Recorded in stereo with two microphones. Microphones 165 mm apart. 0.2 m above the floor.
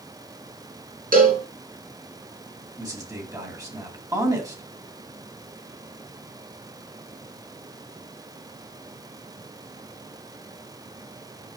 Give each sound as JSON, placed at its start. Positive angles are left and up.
{"t": 1.1, "sound": "a cowbell", "side_deg": -60, "distance_m": 2.5}
{"t": 2.8, "sound": "a man speaking", "side_deg": -20, "distance_m": 1.6}